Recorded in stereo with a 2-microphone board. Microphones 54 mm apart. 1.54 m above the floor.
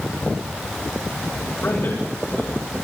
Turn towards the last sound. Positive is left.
turn(degrees=50)  # may be behind; listen again after turning